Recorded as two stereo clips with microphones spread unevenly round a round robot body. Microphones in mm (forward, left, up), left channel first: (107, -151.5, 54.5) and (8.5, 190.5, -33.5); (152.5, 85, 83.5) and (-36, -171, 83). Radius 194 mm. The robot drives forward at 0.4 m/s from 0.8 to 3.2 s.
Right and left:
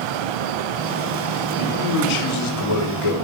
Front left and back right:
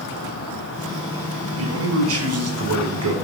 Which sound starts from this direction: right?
A man speaking, at 1.6 s.